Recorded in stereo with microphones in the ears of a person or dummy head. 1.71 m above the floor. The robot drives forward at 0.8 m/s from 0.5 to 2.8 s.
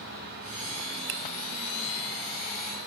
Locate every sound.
1.1 s a finger snap: 45° right (ahead or behind), 0.7 m